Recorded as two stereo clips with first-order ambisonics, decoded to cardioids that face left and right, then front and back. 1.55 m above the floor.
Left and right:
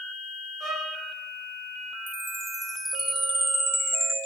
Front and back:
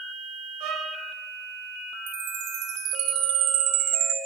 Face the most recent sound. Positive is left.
turn(degrees=-175)